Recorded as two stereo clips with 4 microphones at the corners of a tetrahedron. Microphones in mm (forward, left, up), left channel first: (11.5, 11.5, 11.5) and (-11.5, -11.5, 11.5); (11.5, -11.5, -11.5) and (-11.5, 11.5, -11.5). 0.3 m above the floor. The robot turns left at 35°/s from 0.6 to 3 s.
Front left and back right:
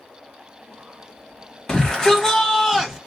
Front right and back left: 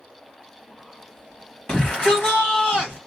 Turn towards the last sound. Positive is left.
turn(degrees=-50)